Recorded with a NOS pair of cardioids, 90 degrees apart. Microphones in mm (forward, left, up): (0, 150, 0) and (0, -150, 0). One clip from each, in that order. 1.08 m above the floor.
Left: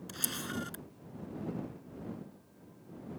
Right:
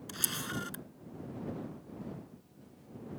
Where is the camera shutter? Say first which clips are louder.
Right 2 dB; 15° right.